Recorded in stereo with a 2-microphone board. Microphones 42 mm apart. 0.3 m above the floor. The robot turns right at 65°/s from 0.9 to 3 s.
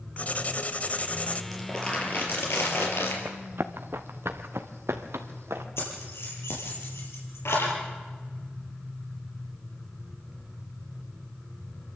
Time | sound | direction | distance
0.2 | writing | 80° left | 1.0 m
1.5 | crumpling | straight ahead | 4.5 m
3.2 | running footsteps | 50° right (ahead or behind) | 1.4 m
5.8 | keys jangling | 75° left (ahead or behind) | 5 m